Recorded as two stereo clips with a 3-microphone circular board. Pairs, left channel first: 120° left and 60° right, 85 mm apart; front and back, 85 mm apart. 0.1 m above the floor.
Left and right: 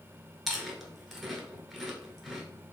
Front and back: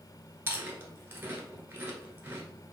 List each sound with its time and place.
0.5 s chewing: 140° right, 0.9 m